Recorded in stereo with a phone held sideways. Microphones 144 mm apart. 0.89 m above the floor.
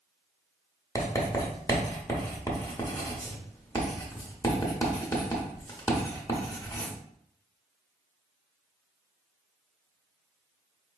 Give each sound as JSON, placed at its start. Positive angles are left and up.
{"t": 0.9, "sound": "writing", "side_deg": 20, "distance_m": 0.9}